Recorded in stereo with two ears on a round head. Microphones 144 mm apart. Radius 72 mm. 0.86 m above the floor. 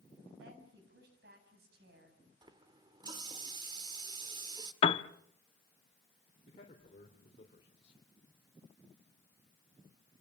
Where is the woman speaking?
70° right (ahead or behind), 7 m.